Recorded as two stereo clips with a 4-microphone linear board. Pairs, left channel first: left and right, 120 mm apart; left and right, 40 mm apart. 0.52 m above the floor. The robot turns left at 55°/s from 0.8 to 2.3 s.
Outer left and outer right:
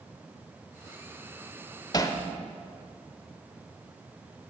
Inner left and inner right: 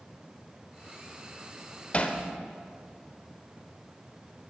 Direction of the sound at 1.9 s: 35° left (ahead or behind).